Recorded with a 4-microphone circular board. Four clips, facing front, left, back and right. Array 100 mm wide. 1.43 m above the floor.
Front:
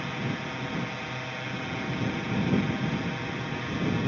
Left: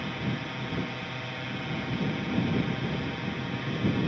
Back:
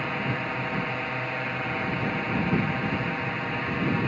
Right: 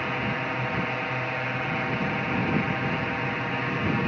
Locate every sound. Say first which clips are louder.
0.0 s a drone: right 5 dB, back 3 dB; 120° right